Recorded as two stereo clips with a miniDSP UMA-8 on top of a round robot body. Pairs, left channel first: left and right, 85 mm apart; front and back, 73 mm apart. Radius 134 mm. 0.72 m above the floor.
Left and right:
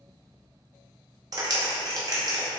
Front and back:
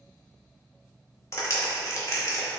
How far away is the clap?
About 2.5 m.